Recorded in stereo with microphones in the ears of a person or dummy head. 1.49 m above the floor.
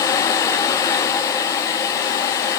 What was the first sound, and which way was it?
Only background noise.